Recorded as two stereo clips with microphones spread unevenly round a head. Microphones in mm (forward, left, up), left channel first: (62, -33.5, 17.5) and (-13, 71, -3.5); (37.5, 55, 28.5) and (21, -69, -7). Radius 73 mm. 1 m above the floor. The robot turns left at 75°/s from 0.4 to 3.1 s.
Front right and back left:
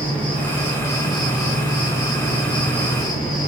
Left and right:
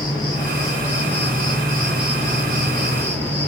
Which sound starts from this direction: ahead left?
An insect, at 0.0 s.